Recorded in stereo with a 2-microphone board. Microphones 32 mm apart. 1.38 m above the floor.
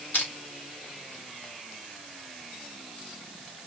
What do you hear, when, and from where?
0.1 s crushing: 75° left (ahead or behind), 1.8 m